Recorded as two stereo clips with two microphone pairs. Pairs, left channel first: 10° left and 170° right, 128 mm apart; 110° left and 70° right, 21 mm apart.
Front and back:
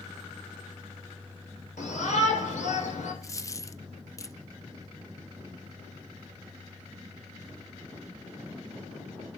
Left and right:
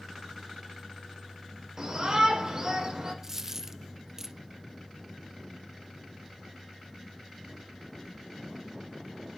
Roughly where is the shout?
Ahead.